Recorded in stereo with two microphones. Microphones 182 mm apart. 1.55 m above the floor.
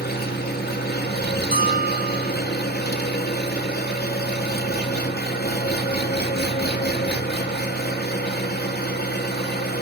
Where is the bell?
55° right (ahead or behind), 4 m.